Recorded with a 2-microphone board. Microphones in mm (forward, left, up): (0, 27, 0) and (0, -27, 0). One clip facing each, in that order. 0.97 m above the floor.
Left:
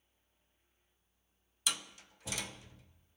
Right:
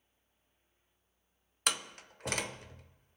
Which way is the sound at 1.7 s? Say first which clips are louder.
Right 4 dB; 55° right (ahead or behind).